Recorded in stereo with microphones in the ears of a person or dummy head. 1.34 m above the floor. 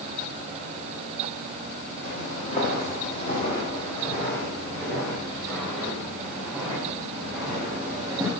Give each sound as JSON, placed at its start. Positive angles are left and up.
{"t": 2.0, "sound": "footsteps", "side_deg": 35, "distance_m": 3.0}